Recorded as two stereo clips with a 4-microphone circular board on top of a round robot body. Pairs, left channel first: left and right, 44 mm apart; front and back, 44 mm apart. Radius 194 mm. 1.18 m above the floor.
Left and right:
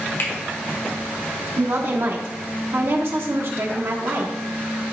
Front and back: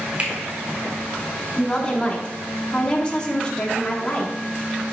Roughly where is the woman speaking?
Ahead right.